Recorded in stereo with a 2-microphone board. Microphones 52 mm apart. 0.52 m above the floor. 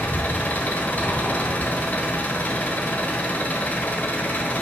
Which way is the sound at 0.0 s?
35° left (ahead or behind).